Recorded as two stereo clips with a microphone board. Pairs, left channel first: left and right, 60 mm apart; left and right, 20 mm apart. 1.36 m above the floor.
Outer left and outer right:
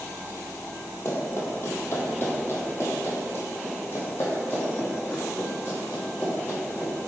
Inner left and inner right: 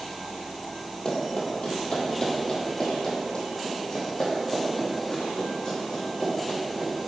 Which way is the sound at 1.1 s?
40° left (ahead or behind).